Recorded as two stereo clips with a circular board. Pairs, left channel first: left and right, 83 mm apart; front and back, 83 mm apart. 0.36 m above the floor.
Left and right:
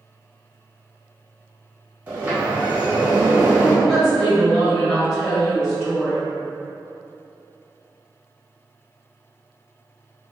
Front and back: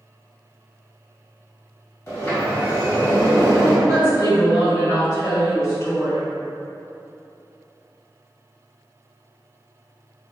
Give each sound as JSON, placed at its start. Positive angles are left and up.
{"t": 2.1, "sound": "a sliding door", "azimuth_deg": -30, "distance_m": 1.4}
{"t": 3.9, "sound": "a woman speaking", "azimuth_deg": 10, "distance_m": 2.0}